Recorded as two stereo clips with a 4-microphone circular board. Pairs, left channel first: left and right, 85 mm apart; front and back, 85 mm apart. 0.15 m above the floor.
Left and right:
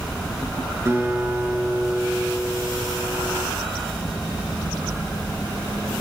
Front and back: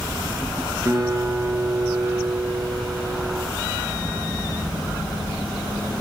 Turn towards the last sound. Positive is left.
turn(degrees=-140)